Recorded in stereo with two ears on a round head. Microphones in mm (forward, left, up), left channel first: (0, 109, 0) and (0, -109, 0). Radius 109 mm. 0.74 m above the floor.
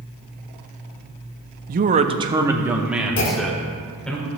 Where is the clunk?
55° left (ahead or behind), 1.3 m.